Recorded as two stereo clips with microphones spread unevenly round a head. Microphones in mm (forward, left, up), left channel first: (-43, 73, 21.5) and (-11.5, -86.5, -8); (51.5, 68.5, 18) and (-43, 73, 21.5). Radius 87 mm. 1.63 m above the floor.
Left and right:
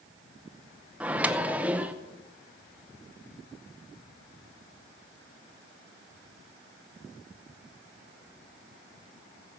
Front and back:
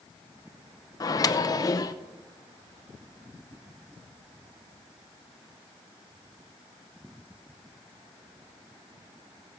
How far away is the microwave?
About 0.7 m.